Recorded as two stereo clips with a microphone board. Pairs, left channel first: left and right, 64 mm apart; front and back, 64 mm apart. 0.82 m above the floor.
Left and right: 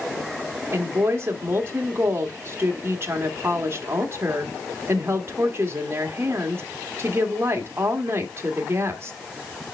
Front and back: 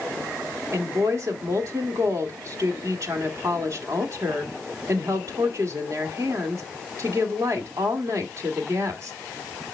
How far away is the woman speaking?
About 1.8 m.